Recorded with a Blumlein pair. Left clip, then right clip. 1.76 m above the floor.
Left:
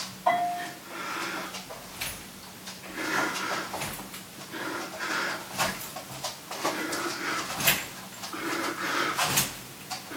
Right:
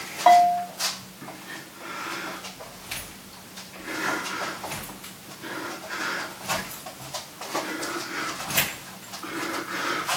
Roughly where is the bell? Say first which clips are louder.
Right 10 dB; ahead right.